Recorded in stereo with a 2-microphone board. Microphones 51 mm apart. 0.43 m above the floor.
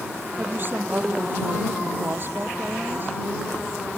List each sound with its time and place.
0.4 s a woman speaking: 40° right (ahead or behind)